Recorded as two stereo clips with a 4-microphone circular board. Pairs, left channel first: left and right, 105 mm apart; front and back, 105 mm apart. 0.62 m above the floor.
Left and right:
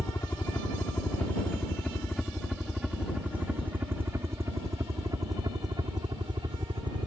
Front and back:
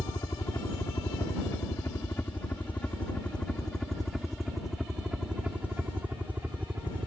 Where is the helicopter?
35° left; by 7.1 s 115° right.